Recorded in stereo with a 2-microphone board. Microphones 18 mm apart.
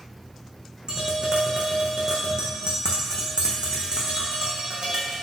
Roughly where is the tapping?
Right.